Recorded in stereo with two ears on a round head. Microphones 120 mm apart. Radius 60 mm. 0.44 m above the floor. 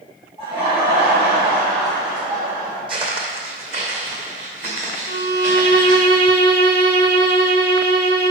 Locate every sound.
0.4 s laughter: 45° right (ahead or behind), 3 m; by 2.8 s 40° right (ahead or behind), 4.5 m
2.9 s footsteps: 40° right (ahead or behind), 1.4 m; by 6.1 s 60° right (ahead or behind), 4 m
5.1 s a violin: 85° right, 0.8 m